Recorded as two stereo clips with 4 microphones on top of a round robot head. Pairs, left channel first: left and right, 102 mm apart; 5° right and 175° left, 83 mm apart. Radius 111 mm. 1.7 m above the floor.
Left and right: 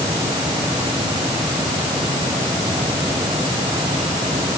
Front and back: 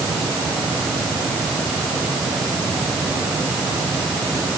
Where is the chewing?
I don't hear chewing.